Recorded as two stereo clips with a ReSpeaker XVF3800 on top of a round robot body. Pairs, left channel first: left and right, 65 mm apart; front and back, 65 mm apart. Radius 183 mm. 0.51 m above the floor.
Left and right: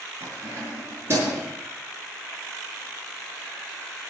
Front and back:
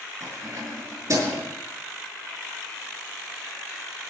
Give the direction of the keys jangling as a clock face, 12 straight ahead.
5 o'clock.